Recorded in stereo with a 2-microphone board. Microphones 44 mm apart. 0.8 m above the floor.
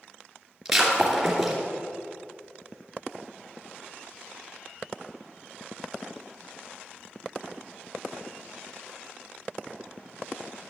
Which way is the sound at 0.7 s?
5° right (ahead or behind).